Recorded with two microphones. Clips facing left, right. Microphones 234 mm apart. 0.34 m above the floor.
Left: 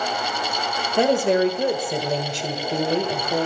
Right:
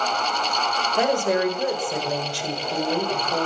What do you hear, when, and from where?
1.0 s a woman speaking: 25° left (ahead or behind), 1.4 m